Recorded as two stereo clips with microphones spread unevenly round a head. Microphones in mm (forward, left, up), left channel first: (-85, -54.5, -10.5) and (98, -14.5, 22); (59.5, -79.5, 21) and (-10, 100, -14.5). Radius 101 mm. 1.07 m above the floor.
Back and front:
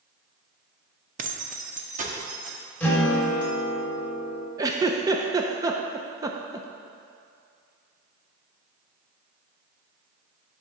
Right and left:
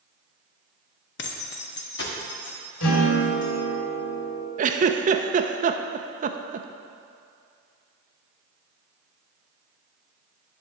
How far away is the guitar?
About 2.5 m.